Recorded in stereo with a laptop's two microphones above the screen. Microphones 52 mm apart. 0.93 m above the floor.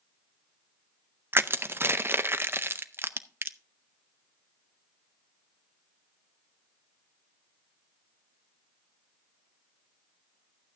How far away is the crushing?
About 0.6 m.